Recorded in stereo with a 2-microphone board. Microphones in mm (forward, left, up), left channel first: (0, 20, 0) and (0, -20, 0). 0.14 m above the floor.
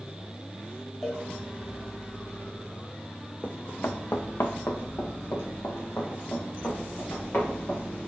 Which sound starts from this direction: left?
Running footsteps, at 3.4 s.